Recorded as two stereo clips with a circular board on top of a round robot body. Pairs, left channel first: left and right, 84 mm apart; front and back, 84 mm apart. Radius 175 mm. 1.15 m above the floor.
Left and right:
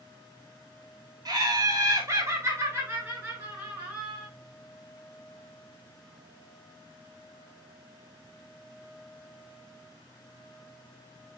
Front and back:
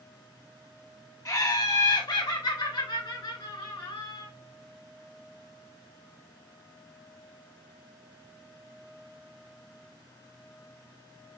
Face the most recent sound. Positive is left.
turn(degrees=-15)